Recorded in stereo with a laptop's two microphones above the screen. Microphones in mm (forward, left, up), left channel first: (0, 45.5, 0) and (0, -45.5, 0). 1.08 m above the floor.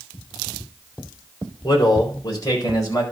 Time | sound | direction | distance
1.6 | a man speaking | 55° left (ahead or behind) | 3.5 m